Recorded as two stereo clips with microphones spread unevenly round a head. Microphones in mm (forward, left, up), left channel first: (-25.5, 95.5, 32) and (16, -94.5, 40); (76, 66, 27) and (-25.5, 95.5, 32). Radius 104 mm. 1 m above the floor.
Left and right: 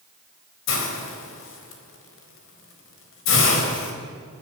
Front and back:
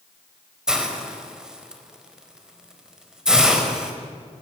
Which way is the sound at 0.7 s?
80° left.